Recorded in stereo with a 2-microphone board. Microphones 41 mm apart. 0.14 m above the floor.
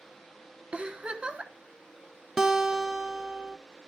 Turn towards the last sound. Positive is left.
turn(degrees=-10)  # may be behind; listen again after turning